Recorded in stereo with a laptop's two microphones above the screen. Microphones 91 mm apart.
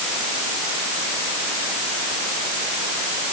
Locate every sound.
Only background noise.